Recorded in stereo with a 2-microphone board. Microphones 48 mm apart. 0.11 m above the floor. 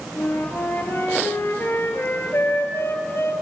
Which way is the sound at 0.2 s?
55° left (ahead or behind).